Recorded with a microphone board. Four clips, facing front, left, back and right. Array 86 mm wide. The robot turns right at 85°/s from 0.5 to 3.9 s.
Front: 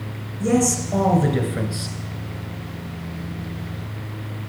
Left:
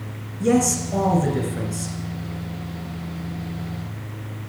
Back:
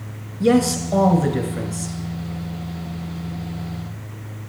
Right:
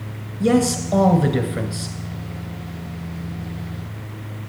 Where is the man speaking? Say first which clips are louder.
Right 2 dB, back 3 dB; 150° right, 1.4 m; by 1.9 s 25° right, 1.4 m.